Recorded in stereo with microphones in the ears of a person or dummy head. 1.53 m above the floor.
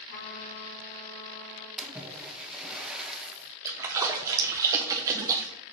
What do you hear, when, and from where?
0.1 s a trumpet: 55° left (ahead or behind), 3 m
1.8 s a splash: centre (ahead or behind), 0.9 m
3.6 s a splash: 10° right (ahead or behind), 0.6 m